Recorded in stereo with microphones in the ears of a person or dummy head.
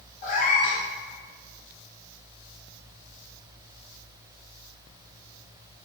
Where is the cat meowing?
40° left (ahead or behind), 1.2 m.